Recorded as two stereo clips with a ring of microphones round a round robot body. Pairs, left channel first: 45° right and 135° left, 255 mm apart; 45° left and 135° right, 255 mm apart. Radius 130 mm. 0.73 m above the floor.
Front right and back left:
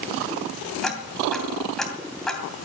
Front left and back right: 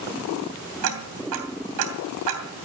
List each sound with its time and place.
0.8 s ticking: 135° right, 2.5 m